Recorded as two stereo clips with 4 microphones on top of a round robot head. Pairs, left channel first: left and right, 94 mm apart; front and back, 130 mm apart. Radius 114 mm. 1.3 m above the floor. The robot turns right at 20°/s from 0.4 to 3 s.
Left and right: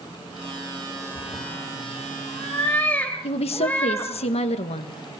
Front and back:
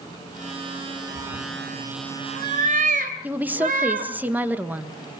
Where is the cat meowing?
135° left, 1.8 m; by 4.1 s 170° left, 1.8 m.